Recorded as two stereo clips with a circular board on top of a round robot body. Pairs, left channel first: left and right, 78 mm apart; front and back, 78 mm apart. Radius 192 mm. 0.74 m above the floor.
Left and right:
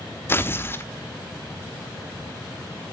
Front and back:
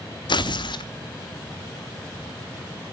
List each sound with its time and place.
0.3 s tearing paper: 25° left, 0.9 m